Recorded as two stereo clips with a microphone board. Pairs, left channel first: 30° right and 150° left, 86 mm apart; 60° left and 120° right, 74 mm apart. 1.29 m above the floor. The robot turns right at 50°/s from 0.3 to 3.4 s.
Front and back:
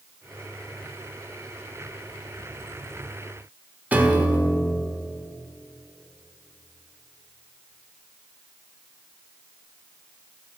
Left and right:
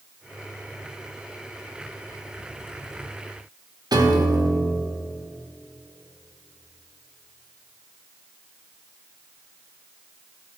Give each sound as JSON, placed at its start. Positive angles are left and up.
{"t": 3.9, "sound": "a piano", "azimuth_deg": -140, "distance_m": 0.9}